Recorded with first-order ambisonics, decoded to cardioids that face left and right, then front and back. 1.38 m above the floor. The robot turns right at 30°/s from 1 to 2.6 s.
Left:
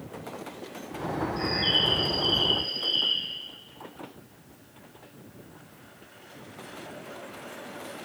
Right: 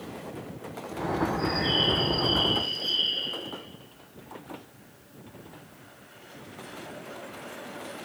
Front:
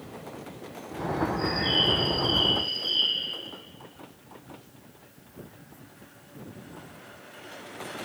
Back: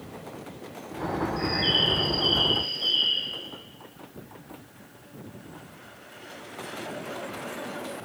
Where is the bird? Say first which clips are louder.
Left 3 dB, back 2 dB; 130° left, 6 m; by 3.3 s 170° left, 6 m.